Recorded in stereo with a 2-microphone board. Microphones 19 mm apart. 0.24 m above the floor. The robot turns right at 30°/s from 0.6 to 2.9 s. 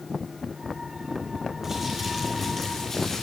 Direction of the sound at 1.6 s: 15° right.